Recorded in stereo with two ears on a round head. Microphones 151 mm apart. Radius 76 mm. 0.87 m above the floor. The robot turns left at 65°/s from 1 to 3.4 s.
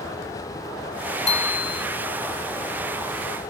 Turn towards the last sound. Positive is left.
turn(degrees=0)